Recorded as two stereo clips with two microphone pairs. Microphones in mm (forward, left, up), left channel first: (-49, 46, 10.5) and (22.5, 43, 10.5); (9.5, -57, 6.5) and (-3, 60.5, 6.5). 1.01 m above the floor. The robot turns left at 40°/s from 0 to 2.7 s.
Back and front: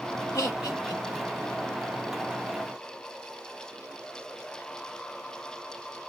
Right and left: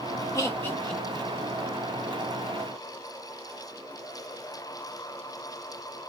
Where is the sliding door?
I don't hear a sliding door.